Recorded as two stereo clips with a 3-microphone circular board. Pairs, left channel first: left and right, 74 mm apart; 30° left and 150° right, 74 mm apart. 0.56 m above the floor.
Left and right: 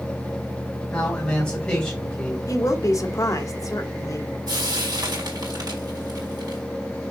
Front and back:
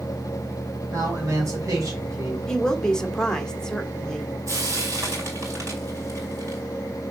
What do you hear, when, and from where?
0.9 s a man speaking: 165° left, 2.5 m
2.5 s a woman speaking: 105° left, 1.3 m
4.5 s frying: 105° right, 3.5 m